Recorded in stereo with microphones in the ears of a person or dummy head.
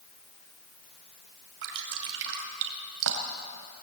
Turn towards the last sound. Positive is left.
turn(degrees=-70)  # may be behind; listen again after turning